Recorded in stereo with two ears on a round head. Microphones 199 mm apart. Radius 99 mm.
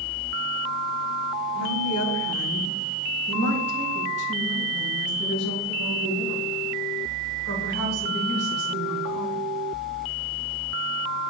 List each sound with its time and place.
1.6 s a woman speaking: 65° left (ahead or behind), 1.8 m; by 9.4 s 60° left (ahead or behind), 6 m